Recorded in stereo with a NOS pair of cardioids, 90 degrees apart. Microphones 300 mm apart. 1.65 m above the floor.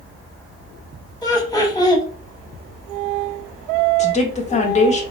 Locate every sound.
1.2 s laughter: 15° left, 1.1 m
4.0 s a woman speaking: 25° left, 0.8 m